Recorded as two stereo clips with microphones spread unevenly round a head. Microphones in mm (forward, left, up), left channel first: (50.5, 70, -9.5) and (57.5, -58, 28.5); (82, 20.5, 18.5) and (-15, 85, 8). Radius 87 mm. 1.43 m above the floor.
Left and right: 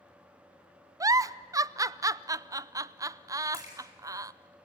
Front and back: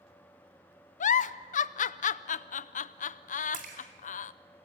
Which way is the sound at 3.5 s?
155° left.